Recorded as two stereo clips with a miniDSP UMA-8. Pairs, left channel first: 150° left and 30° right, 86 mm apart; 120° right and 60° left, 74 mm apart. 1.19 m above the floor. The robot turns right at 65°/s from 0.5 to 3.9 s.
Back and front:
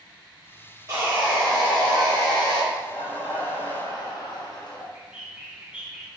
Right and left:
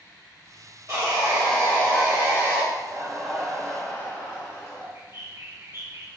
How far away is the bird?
About 0.6 m.